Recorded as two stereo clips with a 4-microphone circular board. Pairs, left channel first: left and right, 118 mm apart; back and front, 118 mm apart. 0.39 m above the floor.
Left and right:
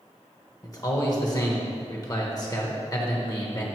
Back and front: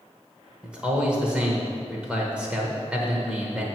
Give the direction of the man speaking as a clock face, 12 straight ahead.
10 o'clock.